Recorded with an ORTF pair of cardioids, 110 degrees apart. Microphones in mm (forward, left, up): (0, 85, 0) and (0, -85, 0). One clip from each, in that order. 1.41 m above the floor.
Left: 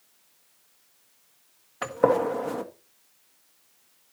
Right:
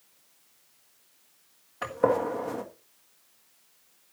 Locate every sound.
1.8 s a gunshot: 20° left, 1.6 m